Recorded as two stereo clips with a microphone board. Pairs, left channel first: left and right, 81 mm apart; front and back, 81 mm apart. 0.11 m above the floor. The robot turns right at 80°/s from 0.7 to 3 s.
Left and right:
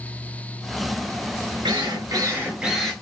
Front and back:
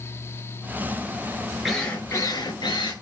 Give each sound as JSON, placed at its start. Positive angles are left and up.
{"t": 1.6, "sound": "a drill", "azimuth_deg": -90, "distance_m": 7.0}